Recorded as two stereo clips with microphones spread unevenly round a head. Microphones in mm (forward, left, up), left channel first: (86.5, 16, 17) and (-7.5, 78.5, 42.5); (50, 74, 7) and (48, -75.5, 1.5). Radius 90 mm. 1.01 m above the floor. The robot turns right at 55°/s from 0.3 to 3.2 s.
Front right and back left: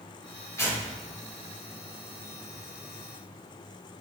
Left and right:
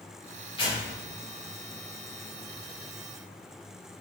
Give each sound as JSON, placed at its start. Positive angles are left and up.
{"t": 0.6, "sound": "tearing paper", "azimuth_deg": 30, "distance_m": 1.9}